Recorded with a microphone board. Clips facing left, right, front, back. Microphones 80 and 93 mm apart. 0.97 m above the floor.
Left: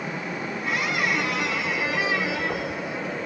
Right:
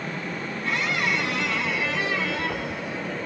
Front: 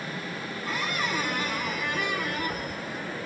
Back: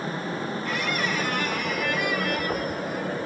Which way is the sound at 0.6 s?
170° left.